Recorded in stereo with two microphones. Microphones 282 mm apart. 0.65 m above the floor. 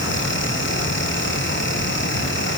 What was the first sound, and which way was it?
Only background noise.